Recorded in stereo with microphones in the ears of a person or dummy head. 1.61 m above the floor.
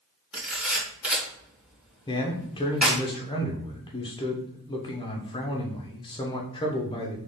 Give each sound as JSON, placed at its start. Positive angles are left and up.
{"t": 0.3, "sound": "a camera shutter", "side_deg": -5, "distance_m": 1.7}
{"t": 2.1, "sound": "a man speaking", "side_deg": 20, "distance_m": 1.0}